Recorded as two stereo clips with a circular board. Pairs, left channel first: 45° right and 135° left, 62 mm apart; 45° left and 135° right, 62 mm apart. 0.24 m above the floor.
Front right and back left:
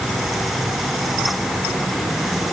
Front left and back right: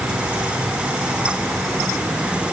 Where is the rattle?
I don't hear a rattle.